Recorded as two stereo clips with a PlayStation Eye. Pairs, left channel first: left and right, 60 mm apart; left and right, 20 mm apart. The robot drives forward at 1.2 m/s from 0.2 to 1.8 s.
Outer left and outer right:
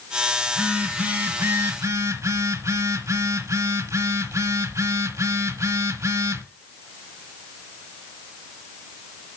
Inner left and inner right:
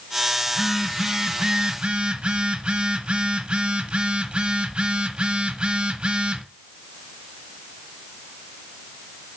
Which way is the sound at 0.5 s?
20° right (ahead or behind).